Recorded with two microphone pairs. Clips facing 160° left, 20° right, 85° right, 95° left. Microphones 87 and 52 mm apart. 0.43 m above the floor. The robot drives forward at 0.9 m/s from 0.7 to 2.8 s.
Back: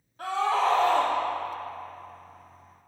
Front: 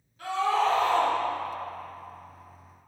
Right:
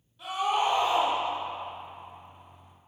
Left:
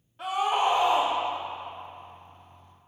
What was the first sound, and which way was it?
A scream, 125° left.